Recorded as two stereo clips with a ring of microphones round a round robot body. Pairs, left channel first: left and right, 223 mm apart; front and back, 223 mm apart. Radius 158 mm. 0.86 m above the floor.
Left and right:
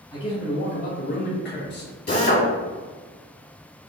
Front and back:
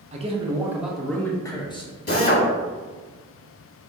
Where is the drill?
45° left, 1.5 m.